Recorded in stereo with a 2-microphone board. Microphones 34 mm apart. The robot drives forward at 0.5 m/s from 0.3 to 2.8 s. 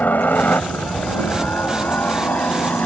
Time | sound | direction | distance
0.0 | a helicopter | 60° left (ahead or behind) | ?